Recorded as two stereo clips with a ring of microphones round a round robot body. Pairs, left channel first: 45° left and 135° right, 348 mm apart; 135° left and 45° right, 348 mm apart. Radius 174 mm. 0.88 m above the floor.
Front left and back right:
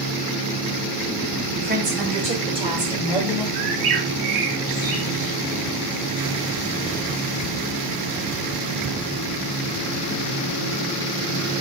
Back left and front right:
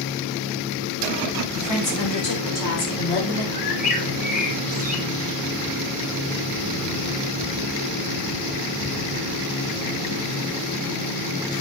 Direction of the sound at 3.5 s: 155° right.